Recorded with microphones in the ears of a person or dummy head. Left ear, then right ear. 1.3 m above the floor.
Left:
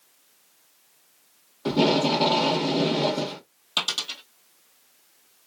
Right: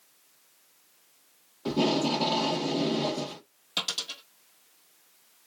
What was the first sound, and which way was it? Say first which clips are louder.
Tape being pulled: left 5 dB; 15° left (ahead or behind).